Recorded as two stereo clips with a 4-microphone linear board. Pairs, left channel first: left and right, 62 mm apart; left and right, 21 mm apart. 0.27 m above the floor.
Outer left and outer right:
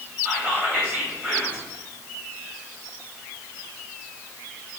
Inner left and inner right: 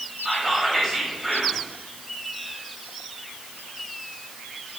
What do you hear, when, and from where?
0.2 s whispering: 25° right (ahead or behind), 1.6 m